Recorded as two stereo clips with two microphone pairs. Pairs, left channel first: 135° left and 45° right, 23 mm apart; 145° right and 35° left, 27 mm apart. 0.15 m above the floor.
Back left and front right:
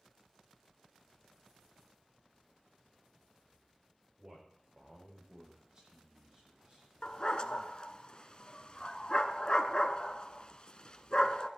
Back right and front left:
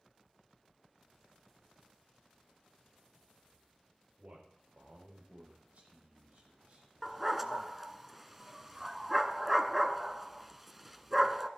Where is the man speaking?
10° left, 5 m.